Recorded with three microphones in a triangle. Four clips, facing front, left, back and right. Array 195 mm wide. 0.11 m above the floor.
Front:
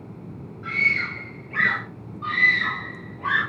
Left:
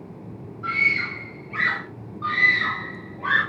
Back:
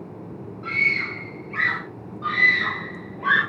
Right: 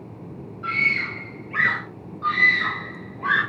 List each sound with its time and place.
0.6 s a scream: 70° right, 2 m; by 1.8 s 55° right, 1.5 m
2.2 s a scream: 140° right, 3.5 m